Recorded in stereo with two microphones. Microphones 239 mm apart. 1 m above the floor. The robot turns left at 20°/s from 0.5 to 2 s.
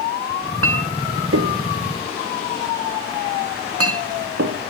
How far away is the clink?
About 0.7 m.